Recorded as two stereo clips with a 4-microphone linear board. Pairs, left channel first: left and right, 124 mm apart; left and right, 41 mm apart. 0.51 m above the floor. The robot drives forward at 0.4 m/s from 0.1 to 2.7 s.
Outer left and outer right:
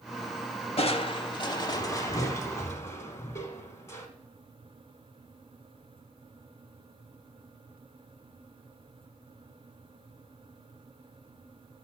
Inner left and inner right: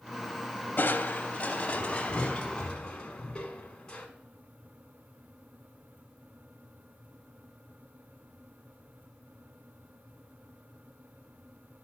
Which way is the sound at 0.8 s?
55° left (ahead or behind).